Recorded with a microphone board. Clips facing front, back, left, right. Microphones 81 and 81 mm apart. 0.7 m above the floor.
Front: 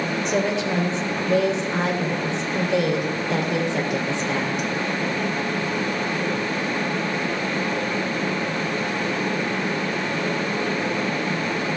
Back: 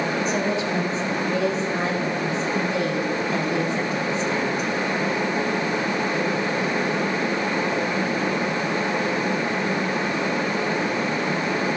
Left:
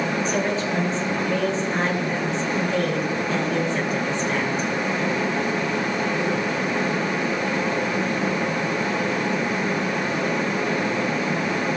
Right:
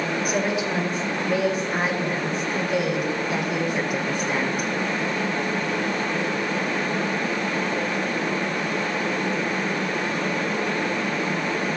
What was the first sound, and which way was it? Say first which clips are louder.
A woman speaking: front 1 dB, left 1 dB; 10° right.